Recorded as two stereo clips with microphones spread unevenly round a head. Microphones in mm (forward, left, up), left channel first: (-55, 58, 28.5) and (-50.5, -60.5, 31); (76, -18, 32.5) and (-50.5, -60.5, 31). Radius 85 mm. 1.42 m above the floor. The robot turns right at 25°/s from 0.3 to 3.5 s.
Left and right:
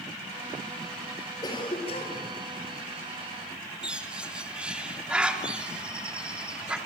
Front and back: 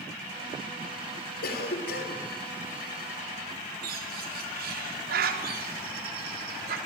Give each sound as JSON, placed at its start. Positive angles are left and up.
{"t": 1.4, "sound": "a cough", "azimuth_deg": 25, "distance_m": 4.0}
{"t": 3.8, "sound": "a bird", "azimuth_deg": -170, "distance_m": 3.5}